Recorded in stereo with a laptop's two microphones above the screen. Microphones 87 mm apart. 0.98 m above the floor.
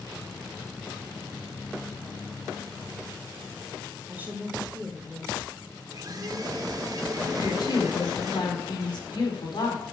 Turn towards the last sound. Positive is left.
turn(degrees=60)  # may be behind; listen again after turning